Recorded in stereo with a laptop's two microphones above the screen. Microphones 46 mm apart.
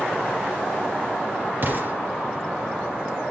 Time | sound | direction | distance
1.6 | an explosion | 45° right (ahead or behind) | 2.5 m